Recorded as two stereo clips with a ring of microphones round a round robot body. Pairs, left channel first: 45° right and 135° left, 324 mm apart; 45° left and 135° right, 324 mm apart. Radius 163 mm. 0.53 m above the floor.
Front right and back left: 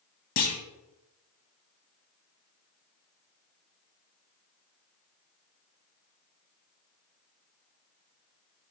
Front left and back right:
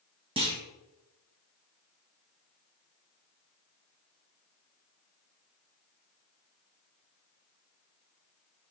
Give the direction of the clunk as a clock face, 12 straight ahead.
2 o'clock.